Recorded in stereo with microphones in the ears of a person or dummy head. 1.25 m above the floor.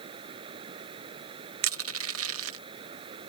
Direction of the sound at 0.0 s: 25° right (ahead or behind).